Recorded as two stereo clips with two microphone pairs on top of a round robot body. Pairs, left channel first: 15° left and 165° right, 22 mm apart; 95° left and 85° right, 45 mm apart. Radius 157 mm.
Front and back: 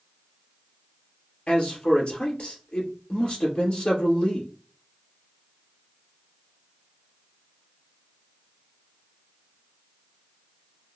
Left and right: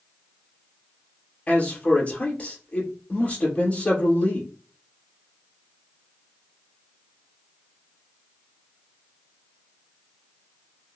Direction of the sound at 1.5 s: 45° left.